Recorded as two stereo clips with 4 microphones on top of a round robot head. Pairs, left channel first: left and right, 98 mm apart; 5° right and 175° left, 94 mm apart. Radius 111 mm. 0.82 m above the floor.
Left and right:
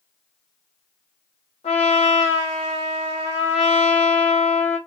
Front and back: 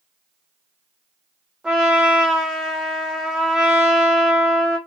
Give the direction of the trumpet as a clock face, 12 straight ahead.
9 o'clock.